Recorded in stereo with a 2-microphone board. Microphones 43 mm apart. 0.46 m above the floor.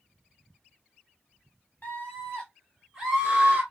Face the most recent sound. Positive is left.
turn(degrees=-25)  # may be behind; listen again after turning